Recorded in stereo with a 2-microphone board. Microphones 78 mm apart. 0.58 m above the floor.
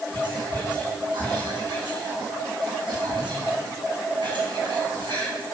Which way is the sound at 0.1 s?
80° right.